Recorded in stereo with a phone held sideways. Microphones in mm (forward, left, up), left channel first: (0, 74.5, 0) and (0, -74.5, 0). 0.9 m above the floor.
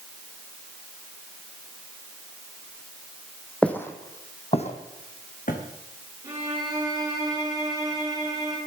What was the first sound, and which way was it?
Footsteps, 5° left (ahead or behind).